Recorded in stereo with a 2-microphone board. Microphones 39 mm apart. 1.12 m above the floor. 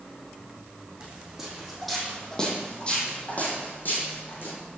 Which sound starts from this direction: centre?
Footsteps, at 1.0 s.